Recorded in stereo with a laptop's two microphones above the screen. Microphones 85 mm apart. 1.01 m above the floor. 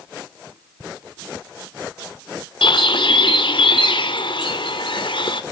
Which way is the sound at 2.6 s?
70° left (ahead or behind).